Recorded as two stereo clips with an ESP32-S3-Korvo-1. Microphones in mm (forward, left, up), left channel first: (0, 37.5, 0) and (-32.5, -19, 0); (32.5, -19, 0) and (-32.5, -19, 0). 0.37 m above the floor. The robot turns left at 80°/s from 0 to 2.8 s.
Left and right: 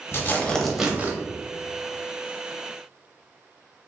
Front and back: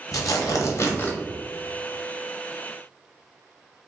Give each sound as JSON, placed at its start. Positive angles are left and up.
{"t": 0.1, "sound": "tearing paper", "azimuth_deg": 15, "distance_m": 0.6}